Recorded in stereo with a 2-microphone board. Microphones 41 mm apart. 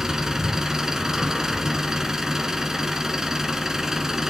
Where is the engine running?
10° right (ahead or behind), 1.1 m.